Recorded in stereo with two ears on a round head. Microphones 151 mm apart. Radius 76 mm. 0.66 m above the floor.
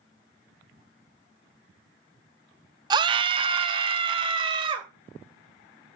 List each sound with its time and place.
2.9 s a scream: 25° right (ahead or behind), 0.6 m; by 4.9 s 30° right (ahead or behind), 2.5 m